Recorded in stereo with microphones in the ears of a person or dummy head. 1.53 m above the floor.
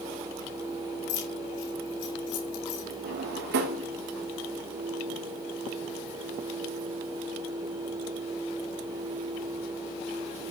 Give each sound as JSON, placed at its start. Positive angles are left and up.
{"t": 1.1, "sound": "keys jangling", "side_deg": 70, "distance_m": 4.5}
{"t": 3.0, "sound": "a drawer", "side_deg": -60, "distance_m": 1.7}